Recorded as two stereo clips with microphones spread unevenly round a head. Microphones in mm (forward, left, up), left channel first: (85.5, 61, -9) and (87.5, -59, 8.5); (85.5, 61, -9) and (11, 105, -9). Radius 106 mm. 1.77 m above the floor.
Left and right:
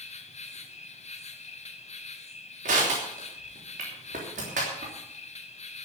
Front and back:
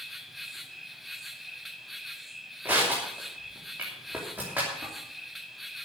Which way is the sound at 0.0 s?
60° left.